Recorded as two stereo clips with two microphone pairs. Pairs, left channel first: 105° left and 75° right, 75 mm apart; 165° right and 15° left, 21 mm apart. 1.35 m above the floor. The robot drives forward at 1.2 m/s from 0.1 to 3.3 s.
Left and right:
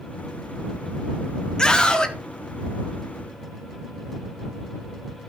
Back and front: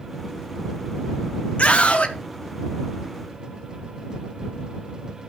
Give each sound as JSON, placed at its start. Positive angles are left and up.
{"t": 1.6, "sound": "a scream", "azimuth_deg": -175, "distance_m": 2.0}